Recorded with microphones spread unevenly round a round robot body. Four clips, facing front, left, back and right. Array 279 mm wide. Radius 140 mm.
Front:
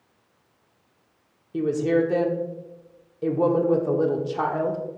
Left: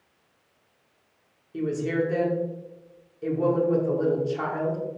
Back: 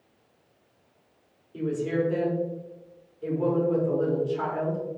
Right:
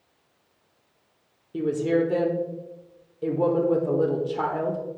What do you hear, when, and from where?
1.5 s a woman speaking: 25° right, 1.2 m